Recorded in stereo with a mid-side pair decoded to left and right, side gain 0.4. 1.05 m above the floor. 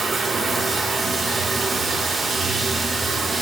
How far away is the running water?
About 4 m.